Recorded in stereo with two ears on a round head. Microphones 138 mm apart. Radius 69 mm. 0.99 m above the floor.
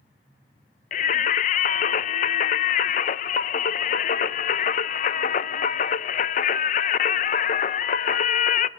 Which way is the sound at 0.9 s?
50° left (ahead or behind).